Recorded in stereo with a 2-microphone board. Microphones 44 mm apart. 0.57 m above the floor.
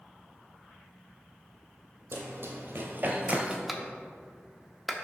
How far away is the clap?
About 0.6 m.